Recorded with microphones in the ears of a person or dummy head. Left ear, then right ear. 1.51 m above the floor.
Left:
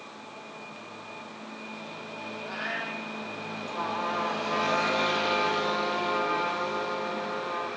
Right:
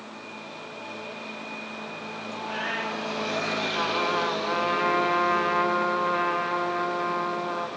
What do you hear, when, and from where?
2.4 s a cat meowing: 50° right (ahead or behind), 9.5 m
3.7 s a trumpet: 80° right, 5.5 m